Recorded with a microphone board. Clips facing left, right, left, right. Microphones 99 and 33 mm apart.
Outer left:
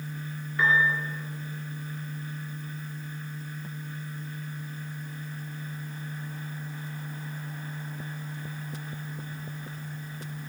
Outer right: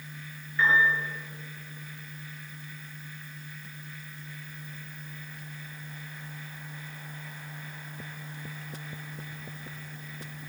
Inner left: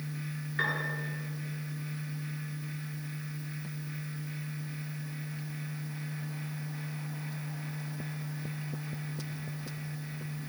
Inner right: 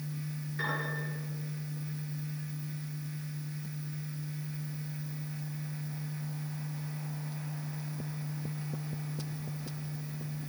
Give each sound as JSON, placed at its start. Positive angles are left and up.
{"t": 0.6, "sound": "a piano", "side_deg": 65, "distance_m": 9.5}